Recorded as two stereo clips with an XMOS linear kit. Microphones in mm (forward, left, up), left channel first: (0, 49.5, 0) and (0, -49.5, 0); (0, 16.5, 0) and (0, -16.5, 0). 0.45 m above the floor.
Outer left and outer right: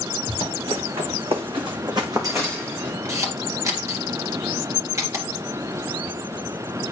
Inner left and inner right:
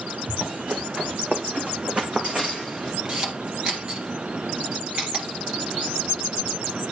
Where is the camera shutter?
35° right (ahead or behind), 2.5 m.